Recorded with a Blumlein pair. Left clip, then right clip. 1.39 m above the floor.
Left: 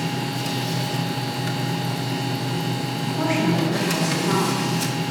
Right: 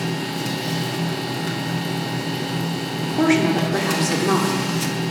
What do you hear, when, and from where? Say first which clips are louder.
0.0 s a machine running: right 1 dB; 5° left, 0.7 m
3.0 s a woman speaking: right 5 dB; 20° right, 1.2 m